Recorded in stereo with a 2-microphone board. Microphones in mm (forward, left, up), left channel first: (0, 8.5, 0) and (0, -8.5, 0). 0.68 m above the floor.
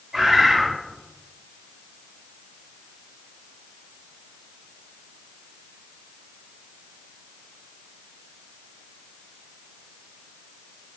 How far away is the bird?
About 1.6 m.